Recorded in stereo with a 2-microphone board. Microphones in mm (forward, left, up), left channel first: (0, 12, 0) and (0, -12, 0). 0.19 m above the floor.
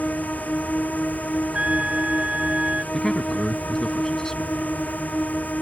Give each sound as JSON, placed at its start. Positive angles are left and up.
{"t": 0.0, "sound": "a drone", "side_deg": 85}
{"t": 1.5, "sound": "a trumpet", "side_deg": -50}
{"t": 2.9, "sound": "a man speaking", "side_deg": 25}